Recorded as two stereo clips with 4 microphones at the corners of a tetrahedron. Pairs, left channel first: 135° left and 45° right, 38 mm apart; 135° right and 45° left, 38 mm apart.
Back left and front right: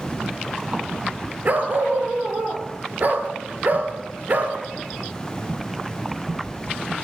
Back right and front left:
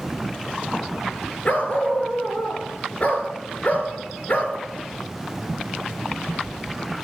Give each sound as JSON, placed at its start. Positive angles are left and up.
{"t": 1.4, "sound": "a dog barking", "azimuth_deg": -90, "distance_m": 2.0}